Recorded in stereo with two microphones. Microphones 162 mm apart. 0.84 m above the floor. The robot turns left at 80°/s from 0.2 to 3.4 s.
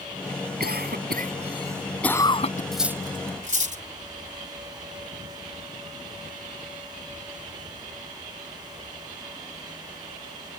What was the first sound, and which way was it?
A cough, 70° right (ahead or behind).